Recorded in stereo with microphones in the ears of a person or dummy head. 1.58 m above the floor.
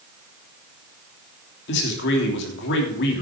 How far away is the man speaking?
About 3 m.